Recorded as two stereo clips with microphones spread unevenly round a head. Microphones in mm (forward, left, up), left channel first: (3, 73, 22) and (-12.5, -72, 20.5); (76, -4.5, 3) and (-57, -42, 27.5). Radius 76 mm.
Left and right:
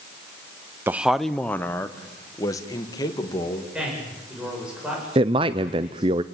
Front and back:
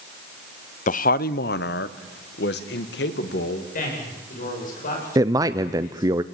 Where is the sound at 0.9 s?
20° right, 0.6 m; by 3.6 s 20° left, 2.5 m.